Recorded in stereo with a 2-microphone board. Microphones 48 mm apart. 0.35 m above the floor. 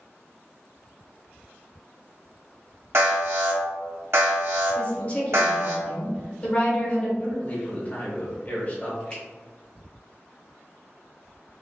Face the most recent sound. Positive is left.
turn(degrees=15)  # may be behind; listen again after turning